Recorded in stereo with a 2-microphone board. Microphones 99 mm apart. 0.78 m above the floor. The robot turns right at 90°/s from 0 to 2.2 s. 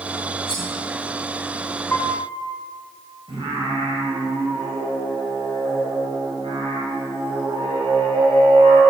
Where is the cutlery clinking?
55° left (ahead or behind), 3 m; by 0.7 s 40° left (ahead or behind), 3 m.